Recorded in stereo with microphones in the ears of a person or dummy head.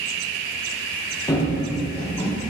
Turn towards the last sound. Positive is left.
turn(degrees=10)  # may be behind; listen again after turning